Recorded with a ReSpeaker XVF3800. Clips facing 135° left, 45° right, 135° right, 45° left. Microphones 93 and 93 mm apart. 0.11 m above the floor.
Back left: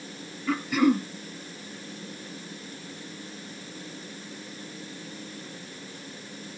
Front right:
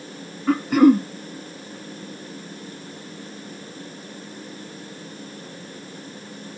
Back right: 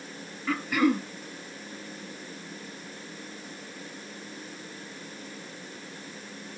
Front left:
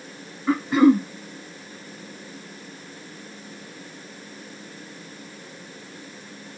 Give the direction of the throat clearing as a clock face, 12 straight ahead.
12 o'clock.